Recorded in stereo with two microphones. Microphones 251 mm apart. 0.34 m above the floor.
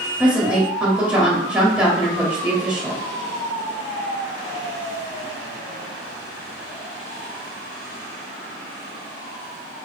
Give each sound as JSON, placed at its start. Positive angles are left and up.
{"t": 0.2, "sound": "a woman speaking", "side_deg": -5, "distance_m": 1.6}